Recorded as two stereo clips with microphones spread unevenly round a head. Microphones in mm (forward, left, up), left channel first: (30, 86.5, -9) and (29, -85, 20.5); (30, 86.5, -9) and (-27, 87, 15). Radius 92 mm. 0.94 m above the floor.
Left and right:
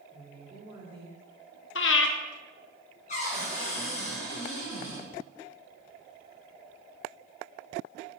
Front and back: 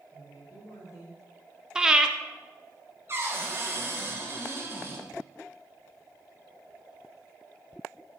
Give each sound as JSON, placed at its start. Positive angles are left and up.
{"t": 0.1, "sound": "a woman speaking", "azimuth_deg": -30, "distance_m": 3.0}
{"t": 1.8, "sound": "breathing", "azimuth_deg": 115, "distance_m": 0.7}
{"t": 3.1, "sound": "a cupboard door", "azimuth_deg": 145, "distance_m": 2.5}